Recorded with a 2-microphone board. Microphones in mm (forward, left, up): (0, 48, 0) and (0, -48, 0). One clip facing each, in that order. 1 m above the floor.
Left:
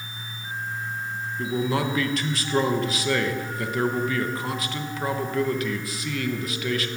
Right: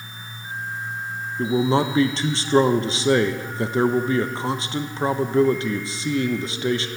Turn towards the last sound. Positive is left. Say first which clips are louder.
# right 6 dB
turn(degrees=-25)  # may be behind; listen again after turning